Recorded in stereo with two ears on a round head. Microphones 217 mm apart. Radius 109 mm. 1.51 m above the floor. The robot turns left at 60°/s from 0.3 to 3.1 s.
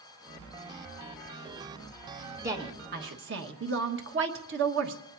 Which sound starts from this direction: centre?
A woman speaking, at 2.4 s.